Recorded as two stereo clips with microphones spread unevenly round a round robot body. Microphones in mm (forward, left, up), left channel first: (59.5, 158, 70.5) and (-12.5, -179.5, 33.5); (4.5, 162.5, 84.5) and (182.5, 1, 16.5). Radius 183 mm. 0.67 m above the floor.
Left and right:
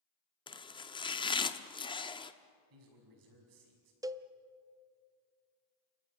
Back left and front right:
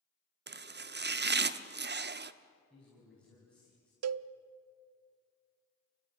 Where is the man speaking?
135° right, 5.5 m.